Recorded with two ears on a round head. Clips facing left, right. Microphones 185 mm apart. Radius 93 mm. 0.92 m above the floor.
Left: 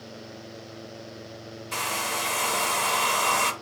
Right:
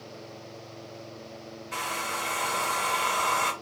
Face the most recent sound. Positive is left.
turn(degrees=55)  # may be behind; listen again after turning